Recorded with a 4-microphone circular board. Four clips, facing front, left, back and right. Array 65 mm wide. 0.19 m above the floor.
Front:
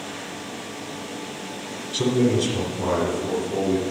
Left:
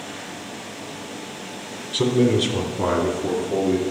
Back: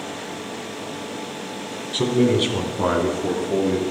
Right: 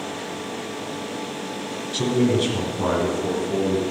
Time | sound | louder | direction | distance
1.9 | a man speaking | left 2 dB, back 2 dB | 130° left | 1.4 m